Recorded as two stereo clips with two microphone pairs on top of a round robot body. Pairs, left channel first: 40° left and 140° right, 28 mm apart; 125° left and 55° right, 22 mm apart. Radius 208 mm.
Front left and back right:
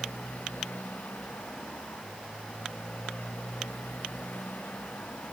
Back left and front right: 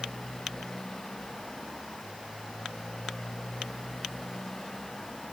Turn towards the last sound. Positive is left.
turn(degrees=55)